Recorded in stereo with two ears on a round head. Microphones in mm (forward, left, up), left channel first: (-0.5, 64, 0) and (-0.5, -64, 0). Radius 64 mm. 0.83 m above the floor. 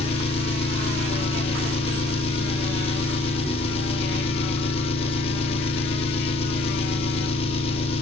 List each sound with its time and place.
0.0 s an engine running: 40° left (ahead or behind), 0.9 m